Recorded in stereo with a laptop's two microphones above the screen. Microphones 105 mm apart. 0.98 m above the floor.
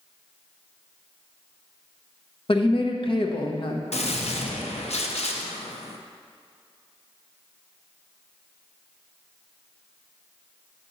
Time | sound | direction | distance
2.5 | a woman speaking | 55° left (ahead or behind) | 0.8 m
3.9 | a gunshot | 80° left | 0.7 m